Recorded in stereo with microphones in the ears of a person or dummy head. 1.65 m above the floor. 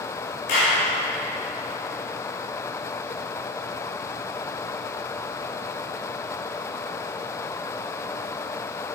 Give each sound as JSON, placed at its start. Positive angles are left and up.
{"t": 0.5, "sound": "a clap", "side_deg": 70, "distance_m": 2.5}